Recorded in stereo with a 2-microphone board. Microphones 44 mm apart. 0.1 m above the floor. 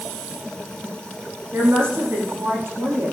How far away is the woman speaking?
About 6.5 m.